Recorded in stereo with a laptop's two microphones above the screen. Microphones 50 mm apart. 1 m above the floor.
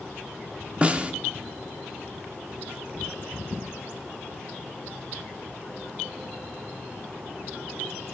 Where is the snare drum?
25° right (ahead or behind), 1.0 m.